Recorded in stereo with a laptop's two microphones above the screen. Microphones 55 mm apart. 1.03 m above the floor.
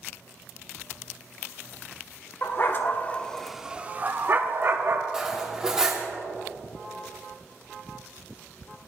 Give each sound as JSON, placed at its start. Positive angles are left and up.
{"t": 2.4, "sound": "a dog barking", "side_deg": 45, "distance_m": 1.0}
{"t": 5.1, "sound": "cutlery clinking", "side_deg": -10, "distance_m": 1.1}